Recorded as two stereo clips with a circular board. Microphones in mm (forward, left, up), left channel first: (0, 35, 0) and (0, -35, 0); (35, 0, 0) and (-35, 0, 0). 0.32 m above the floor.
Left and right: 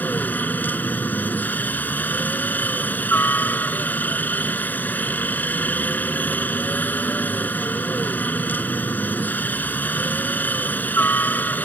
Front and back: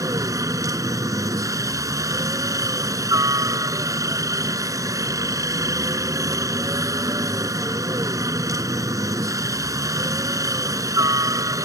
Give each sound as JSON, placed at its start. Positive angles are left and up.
{"t": 0.0, "sound": "a helicopter", "azimuth_deg": 150}